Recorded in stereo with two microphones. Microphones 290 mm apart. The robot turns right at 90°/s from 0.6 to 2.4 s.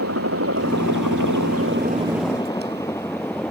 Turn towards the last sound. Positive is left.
turn(degrees=5)  # may be behind; listen again after turning